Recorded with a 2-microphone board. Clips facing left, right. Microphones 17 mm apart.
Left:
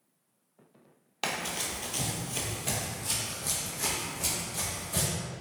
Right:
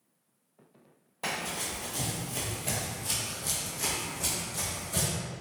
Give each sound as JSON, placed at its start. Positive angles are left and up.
{"t": 1.2, "sound": "running footsteps", "side_deg": 65, "distance_m": 0.6}